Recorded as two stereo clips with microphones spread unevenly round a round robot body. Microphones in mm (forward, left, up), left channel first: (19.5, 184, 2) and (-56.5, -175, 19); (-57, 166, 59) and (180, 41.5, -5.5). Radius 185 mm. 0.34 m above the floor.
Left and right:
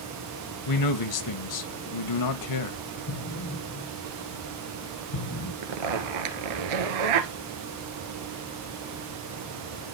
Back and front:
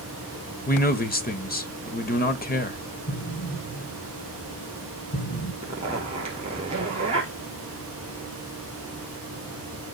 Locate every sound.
0.7 s a man speaking: 90° left, 1.4 m
3.1 s an explosion: 115° left, 5 m
5.6 s a zipper: 105° right, 1.5 m